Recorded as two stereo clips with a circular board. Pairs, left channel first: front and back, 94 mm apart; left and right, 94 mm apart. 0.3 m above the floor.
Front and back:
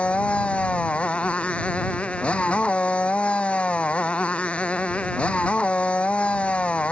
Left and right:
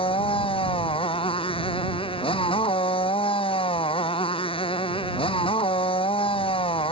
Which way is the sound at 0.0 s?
75° left.